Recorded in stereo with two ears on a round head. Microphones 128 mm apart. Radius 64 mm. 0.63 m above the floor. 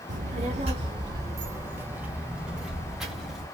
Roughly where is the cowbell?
I don't hear a cowbell.